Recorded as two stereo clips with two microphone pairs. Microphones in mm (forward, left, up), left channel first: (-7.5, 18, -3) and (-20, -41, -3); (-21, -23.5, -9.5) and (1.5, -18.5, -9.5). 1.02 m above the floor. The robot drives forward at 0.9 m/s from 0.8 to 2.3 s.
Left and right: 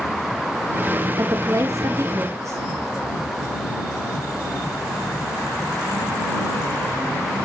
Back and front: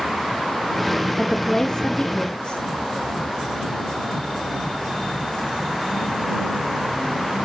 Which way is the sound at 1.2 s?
85° right.